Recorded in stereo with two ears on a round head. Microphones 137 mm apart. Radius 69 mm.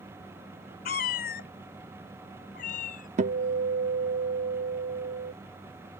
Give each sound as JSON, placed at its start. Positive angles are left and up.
{"t": 0.8, "sound": "a cat meowing", "side_deg": 60}
{"t": 3.2, "sound": "a guitar", "side_deg": -50}